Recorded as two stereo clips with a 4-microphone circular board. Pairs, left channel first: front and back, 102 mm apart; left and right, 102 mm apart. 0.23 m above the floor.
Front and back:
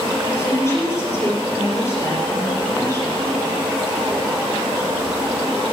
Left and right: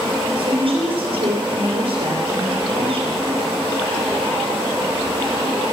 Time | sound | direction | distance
0.4 | a woman speaking | 65° right | 6 m